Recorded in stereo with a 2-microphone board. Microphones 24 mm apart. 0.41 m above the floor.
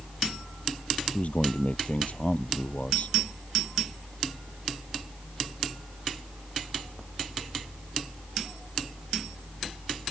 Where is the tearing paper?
I don't hear tearing paper.